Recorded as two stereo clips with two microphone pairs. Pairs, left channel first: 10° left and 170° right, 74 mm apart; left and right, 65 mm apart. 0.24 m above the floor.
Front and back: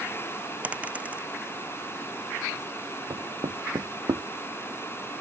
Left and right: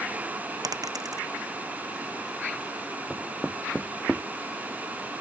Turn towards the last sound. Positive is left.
turn(degrees=180)